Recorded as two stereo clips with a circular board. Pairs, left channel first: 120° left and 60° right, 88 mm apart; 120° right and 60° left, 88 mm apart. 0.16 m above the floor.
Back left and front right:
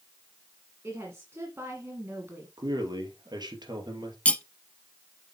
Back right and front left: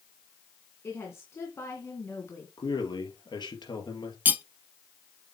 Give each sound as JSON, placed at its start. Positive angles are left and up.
{"t": 0.8, "sound": "a woman speaking", "azimuth_deg": -90, "distance_m": 1.9}
{"t": 2.6, "sound": "a man speaking", "azimuth_deg": -95, "distance_m": 2.5}
{"t": 4.2, "sound": "cutlery clinking", "azimuth_deg": 75, "distance_m": 0.6}